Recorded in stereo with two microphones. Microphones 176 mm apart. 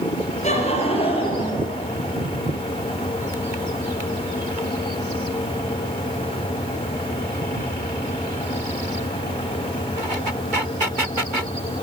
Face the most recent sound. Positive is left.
turn(degrees=30)  # may be behind; listen again after turning